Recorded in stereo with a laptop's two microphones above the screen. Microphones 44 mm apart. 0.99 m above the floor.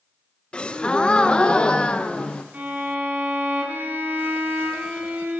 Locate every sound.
0.5 s a gasp: 20° left (ahead or behind), 0.6 m
2.5 s a violin: 35° right (ahead or behind), 3.5 m